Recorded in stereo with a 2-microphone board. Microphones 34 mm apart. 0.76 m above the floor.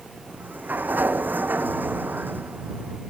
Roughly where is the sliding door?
Right.